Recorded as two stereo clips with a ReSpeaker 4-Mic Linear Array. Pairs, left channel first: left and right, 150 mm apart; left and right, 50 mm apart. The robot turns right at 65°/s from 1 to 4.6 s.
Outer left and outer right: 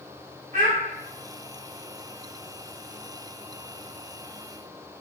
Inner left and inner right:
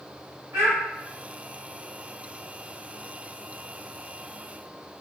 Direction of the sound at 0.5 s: 55° right (ahead or behind).